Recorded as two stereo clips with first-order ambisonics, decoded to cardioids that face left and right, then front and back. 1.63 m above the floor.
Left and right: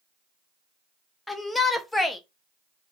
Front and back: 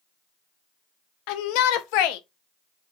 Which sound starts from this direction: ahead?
A shout, at 1.3 s.